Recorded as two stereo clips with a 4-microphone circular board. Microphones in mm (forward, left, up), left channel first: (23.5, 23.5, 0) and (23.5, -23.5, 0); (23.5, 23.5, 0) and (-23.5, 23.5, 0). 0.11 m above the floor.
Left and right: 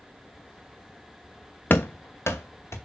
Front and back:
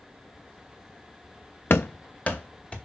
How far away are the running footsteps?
About 0.5 m.